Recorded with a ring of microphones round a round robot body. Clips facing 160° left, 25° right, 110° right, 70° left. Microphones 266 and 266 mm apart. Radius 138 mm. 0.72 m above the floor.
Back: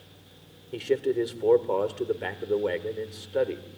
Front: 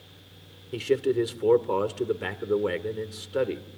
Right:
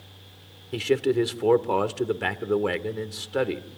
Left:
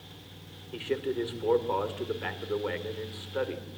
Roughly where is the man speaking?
Right.